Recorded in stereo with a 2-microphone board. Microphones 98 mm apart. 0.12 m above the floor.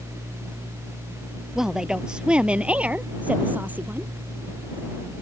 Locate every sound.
1.6 s a woman speaking: 5° right (ahead or behind); by 4.1 s 20° right (ahead or behind)